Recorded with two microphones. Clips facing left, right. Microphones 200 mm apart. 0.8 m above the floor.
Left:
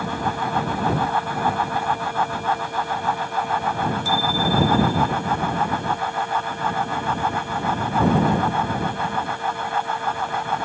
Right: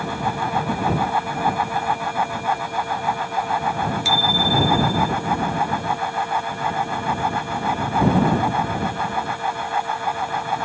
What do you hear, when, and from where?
4.0 s a bicycle bell: 85° right; by 5.1 s 90° right